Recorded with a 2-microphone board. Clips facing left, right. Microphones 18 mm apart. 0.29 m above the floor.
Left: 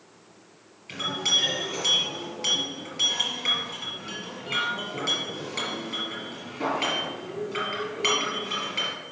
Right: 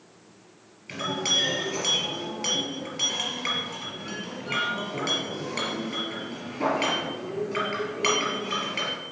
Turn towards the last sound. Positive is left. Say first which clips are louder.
# left 1 dB
turn(degrees=-10)  # may be behind; listen again after turning